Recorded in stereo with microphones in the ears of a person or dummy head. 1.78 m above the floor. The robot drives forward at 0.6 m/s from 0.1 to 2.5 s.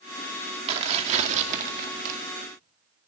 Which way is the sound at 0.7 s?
40° right (ahead or behind).